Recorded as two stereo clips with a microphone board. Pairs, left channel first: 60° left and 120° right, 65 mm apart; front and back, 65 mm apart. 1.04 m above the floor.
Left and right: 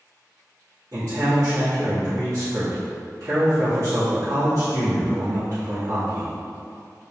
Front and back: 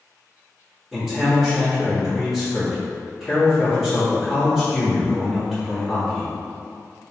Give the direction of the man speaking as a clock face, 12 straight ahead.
3 o'clock.